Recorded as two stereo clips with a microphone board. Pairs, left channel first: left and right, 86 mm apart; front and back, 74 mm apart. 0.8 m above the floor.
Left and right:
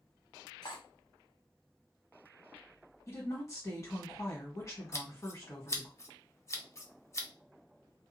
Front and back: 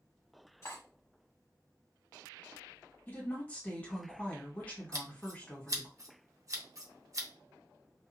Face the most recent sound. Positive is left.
turn(degrees=145)